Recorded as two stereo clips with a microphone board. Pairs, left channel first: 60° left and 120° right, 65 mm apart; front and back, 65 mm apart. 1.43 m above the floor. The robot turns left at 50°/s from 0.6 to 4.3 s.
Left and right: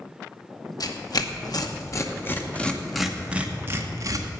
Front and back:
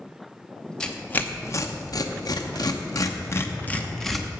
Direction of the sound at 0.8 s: 75° left.